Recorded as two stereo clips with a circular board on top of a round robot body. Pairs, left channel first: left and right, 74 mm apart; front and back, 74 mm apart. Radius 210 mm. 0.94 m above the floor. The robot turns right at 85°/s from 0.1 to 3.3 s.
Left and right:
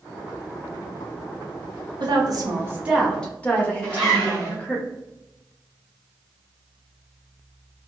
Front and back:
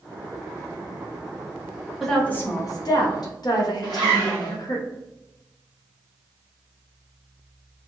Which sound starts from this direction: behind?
A zipper, at 3.8 s.